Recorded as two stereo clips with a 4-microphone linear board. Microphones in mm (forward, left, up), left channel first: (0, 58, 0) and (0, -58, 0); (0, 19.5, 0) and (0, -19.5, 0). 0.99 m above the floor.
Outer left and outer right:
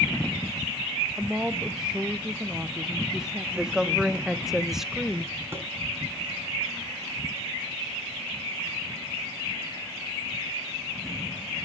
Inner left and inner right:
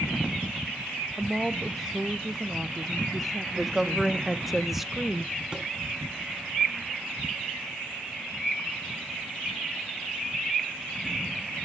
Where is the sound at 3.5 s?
5° right (ahead or behind), 0.8 m.